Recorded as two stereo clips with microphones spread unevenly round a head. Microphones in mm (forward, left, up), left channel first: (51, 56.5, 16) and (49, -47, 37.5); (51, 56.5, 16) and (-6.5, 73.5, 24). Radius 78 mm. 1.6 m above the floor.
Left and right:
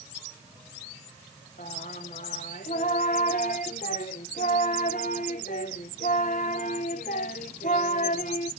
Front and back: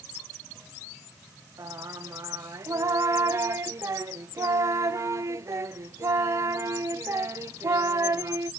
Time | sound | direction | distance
1.6 | singing | 125° left | 0.5 m